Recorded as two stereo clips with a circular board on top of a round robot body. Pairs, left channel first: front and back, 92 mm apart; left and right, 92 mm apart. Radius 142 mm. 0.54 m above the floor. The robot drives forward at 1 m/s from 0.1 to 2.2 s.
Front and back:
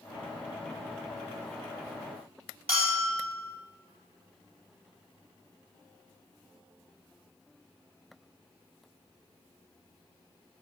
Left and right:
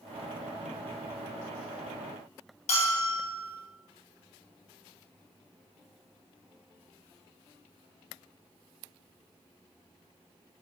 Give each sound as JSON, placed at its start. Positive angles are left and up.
{"t": 2.7, "sound": "a bell", "azimuth_deg": 100, "distance_m": 2.5}